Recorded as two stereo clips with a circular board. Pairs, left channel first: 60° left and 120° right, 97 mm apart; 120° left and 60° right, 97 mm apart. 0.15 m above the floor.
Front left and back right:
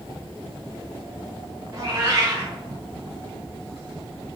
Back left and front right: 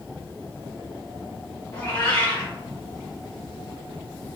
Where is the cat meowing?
175° right, 1.5 m.